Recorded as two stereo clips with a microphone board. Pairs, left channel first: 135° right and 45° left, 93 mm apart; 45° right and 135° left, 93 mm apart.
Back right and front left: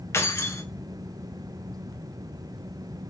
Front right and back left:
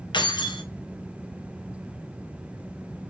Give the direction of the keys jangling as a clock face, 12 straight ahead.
3 o'clock.